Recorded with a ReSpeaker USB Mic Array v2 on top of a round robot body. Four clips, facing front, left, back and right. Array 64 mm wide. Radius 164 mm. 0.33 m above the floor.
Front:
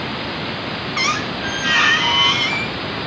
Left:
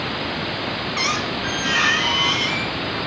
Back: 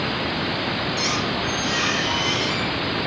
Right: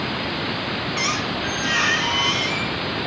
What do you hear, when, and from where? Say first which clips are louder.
1.0 s a squeak: left 2 dB, front 3 dB; 10° left, 1.0 m